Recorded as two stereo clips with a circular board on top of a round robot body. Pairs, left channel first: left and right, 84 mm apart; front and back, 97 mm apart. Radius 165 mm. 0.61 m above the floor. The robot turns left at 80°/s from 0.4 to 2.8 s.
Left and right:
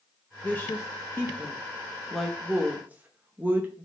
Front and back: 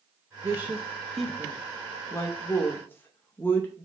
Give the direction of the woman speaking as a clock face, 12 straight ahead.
7 o'clock.